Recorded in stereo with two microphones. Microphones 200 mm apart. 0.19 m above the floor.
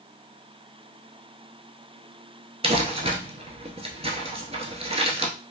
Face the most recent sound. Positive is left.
turn(degrees=-30)  # may be behind; listen again after turning